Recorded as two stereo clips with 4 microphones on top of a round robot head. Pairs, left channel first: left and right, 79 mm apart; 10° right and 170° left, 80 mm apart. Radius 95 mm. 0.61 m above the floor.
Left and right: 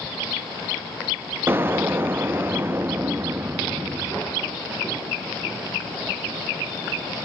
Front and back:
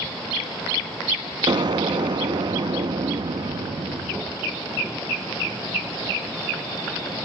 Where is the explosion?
155° right, 0.5 m.